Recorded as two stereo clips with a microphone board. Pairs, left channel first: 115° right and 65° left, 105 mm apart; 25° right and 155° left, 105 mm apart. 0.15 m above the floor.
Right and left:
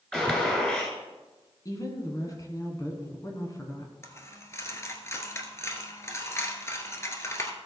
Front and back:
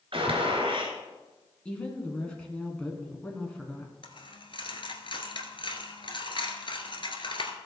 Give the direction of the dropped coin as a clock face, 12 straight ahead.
2 o'clock.